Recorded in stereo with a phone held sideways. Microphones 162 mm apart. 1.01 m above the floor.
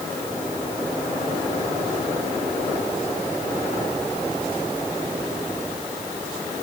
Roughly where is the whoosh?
I don't hear a whoosh.